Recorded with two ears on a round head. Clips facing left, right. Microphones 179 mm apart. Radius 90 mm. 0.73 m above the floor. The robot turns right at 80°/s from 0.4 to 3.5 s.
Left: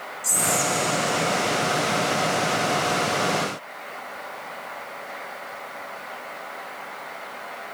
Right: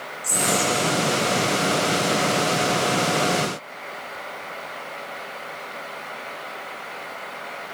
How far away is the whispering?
About 1.2 m.